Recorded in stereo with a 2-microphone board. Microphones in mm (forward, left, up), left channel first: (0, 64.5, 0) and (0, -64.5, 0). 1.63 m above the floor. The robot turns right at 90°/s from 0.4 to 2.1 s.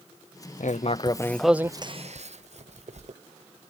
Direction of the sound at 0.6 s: 75° left (ahead or behind).